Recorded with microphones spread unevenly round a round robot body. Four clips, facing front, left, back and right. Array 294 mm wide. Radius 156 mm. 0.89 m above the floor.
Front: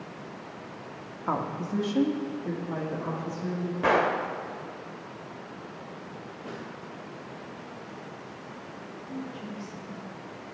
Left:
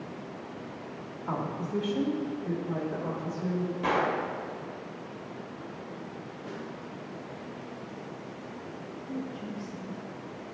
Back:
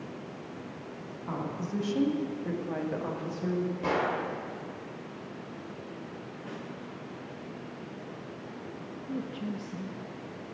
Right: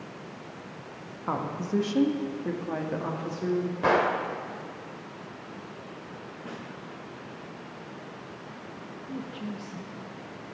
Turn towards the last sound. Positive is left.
turn(degrees=-155)